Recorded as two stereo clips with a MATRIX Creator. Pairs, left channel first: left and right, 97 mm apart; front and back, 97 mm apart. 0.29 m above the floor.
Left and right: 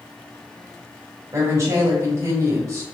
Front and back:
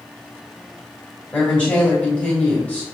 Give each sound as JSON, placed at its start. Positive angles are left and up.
{"t": 1.3, "sound": "a woman speaking", "azimuth_deg": -65, "distance_m": 1.2}